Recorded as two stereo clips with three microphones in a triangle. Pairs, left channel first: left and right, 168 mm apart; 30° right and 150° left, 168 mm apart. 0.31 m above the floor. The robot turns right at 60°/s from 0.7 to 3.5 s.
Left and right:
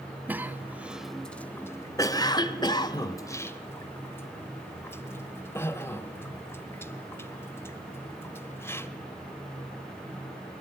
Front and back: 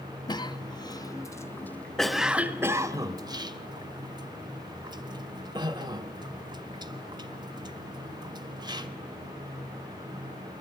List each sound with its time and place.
0.3 s a cough: 25° right, 1.2 m; by 8.9 s 145° left, 1.2 m